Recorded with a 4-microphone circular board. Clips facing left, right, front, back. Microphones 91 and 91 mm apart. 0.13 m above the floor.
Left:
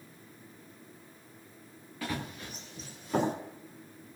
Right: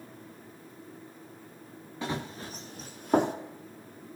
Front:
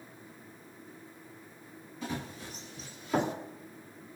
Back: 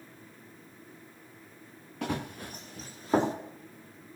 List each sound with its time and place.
2.0 s running footsteps: 155° right, 1.9 m; by 3.3 s 120° right, 2.5 m